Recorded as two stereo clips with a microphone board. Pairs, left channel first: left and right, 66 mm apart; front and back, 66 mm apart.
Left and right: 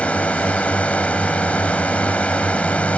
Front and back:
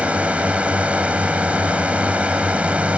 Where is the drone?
135° left.